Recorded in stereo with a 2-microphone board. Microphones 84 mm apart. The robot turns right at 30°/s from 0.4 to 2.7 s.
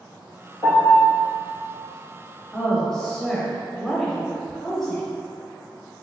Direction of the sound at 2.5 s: 5° left (ahead or behind).